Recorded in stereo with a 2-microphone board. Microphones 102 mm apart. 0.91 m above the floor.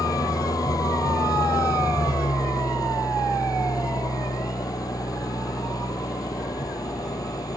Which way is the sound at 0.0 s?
35° left (ahead or behind).